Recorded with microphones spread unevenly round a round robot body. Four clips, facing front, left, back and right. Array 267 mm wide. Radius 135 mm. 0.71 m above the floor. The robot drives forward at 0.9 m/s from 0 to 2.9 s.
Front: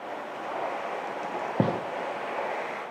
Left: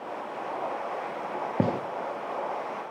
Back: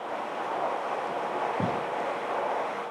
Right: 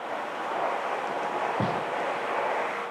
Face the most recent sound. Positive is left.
turn(degrees=145)